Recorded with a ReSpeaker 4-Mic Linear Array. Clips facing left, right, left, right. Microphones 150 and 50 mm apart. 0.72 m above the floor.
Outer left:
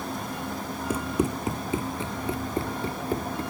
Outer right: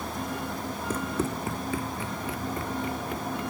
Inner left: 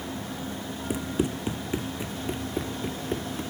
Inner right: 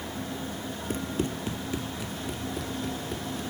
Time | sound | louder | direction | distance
0.9 | running footsteps | outer left 4 dB, inner left 3 dB | 10° left (ahead or behind) | ?